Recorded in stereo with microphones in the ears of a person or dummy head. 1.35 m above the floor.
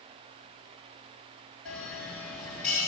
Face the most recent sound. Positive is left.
turn(degrees=5)  # may be behind; listen again after turning